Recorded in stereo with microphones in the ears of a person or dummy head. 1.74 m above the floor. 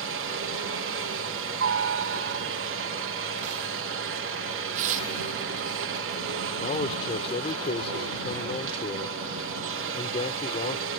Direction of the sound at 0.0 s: 65° right (ahead or behind).